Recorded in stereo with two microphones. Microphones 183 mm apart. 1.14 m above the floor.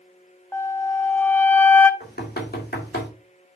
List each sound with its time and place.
0.5 s a flute: 10° left (ahead or behind), 0.7 m
2.0 s knocking: 60° left (ahead or behind), 2 m